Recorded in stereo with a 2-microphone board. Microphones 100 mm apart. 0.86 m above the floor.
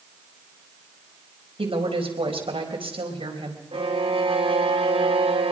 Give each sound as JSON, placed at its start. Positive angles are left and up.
{"t": 1.6, "sound": "a woman speaking", "side_deg": -65, "distance_m": 4.0}
{"t": 3.7, "sound": "a violin", "side_deg": -70, "distance_m": 3.0}